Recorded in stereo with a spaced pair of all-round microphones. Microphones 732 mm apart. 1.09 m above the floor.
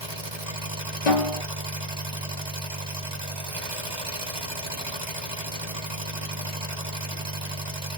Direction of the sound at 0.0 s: 35° right (ahead or behind).